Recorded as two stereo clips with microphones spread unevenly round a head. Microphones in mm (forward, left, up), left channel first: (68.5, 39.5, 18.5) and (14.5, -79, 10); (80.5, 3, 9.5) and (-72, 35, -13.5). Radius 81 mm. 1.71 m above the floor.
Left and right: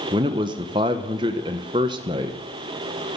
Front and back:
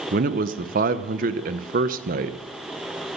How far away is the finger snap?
No finger snap in this recording.